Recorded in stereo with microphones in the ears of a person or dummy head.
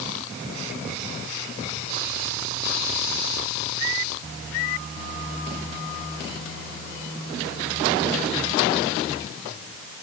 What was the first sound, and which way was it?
Only background noise.